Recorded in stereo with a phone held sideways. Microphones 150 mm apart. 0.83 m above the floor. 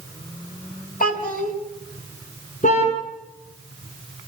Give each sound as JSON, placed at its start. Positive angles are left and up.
{"t": 1.0, "sound": "a child speaking", "side_deg": 65, "distance_m": 4.5}
{"t": 2.6, "sound": "a car horn", "side_deg": 60, "distance_m": 6.0}